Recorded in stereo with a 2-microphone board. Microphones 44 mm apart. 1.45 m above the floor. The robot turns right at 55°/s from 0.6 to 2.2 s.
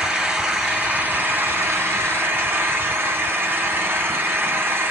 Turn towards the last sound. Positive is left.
turn(degrees=-70)